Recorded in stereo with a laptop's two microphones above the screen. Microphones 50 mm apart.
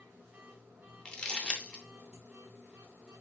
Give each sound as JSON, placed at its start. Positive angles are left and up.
{"t": 0.0, "sound": "a machine running", "side_deg": -25, "distance_m": 2.5}
{"t": 1.1, "sound": "crumpling", "side_deg": 20, "distance_m": 0.8}